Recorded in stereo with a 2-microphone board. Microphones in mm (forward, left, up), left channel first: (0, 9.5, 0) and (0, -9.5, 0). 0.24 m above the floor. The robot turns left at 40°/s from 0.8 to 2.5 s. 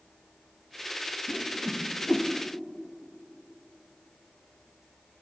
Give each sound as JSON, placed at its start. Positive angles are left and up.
{"t": 1.3, "sound": "a whoosh", "side_deg": 60, "distance_m": 4.0}